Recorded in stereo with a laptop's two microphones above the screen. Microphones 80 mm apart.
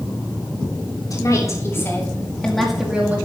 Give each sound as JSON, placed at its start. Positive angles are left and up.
{"t": 1.1, "sound": "a woman speaking", "side_deg": 45, "distance_m": 3.0}